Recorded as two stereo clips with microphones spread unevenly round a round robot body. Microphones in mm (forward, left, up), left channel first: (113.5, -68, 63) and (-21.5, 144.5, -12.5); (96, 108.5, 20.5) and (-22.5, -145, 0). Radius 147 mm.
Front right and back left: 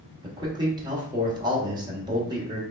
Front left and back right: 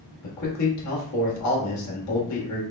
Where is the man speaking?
70° left, 1.4 m.